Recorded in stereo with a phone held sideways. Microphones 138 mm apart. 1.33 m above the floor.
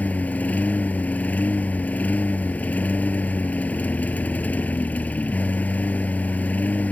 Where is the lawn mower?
10° left (ahead or behind).